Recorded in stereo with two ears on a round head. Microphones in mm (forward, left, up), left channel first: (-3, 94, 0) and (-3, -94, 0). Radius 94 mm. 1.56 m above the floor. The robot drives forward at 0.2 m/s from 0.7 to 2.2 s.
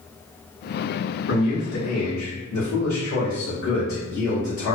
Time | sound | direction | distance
1.3 | a man speaking | 80° left | 1.4 m